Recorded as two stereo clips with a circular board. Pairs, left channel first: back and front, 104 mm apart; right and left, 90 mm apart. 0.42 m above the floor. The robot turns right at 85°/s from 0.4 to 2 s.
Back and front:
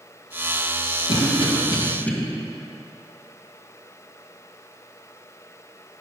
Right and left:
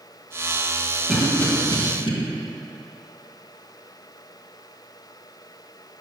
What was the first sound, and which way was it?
A cough, straight behind.